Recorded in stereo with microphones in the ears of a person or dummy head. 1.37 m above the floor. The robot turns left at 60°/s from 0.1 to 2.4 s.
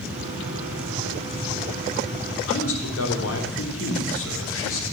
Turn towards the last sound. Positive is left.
turn(degrees=80)